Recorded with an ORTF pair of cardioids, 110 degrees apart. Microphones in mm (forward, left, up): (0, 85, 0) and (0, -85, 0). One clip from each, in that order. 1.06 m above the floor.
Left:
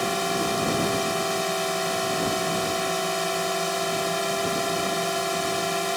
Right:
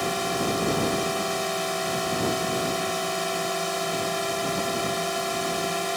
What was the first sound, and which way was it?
A drone, 15° left.